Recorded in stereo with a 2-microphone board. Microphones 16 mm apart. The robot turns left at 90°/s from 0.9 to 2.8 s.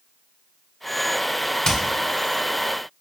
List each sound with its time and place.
1.6 s hammering: 40° left (ahead or behind), 1.2 m; by 1.8 s 45° left (ahead or behind), 1.2 m